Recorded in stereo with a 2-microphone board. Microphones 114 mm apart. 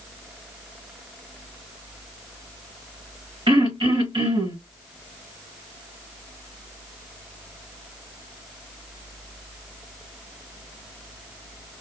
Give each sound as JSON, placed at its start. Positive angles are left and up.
{"t": 3.5, "sound": "throat clearing", "side_deg": -45, "distance_m": 2.0}